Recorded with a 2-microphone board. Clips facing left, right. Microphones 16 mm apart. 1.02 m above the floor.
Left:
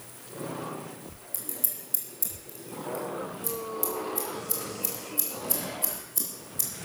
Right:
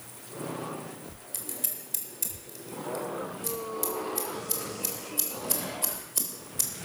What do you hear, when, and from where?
1.3 s scissors: 30° right (ahead or behind), 3.5 m